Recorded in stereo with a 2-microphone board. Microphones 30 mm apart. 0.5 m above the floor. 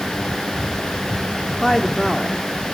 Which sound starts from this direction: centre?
A woman speaking, at 1.6 s.